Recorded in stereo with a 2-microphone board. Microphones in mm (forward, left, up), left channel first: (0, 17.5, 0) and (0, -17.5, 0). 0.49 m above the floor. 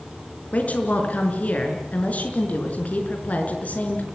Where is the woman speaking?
45° left (ahead or behind), 5 m.